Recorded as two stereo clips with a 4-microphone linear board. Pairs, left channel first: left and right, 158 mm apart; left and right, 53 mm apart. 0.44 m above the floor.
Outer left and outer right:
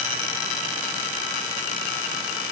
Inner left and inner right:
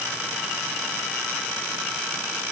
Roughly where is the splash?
I don't hear a splash.